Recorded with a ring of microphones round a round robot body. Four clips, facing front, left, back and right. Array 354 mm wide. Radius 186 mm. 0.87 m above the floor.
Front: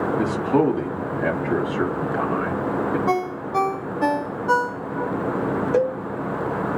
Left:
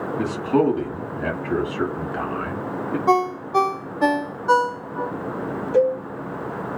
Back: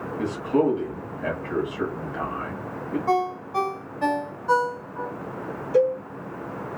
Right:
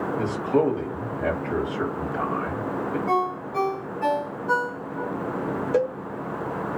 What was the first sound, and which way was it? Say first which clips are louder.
A man speaking: left 3 dB, front 1 dB; 30° left.